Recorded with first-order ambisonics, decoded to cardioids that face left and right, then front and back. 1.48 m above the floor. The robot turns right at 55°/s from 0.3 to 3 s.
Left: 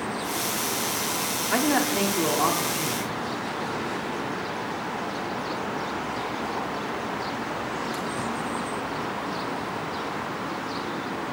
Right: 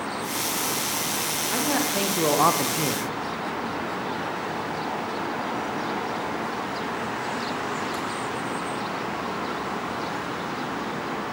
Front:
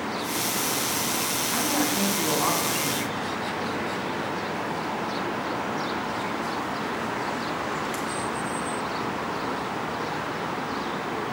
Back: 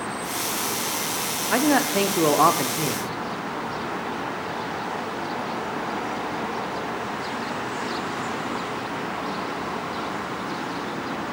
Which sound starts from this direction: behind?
A man speaking, at 1.5 s.